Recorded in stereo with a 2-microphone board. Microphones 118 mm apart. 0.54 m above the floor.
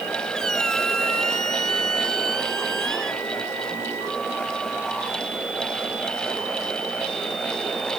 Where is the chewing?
No chewing in this recording.